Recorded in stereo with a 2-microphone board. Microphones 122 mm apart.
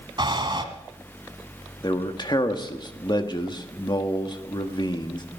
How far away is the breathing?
About 1.5 m.